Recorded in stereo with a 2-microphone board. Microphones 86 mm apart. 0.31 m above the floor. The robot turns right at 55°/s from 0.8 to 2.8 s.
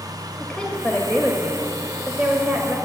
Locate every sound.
0.4 s a woman speaking: 15° left (ahead or behind), 1.2 m; by 2.8 s 25° right (ahead or behind), 1.2 m